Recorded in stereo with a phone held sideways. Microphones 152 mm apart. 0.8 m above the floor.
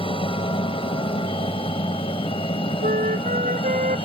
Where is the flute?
60° right (ahead or behind).